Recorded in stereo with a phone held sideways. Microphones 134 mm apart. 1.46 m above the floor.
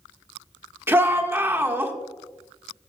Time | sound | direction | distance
0.9 | a shout | 15° right (ahead or behind) | 1.6 m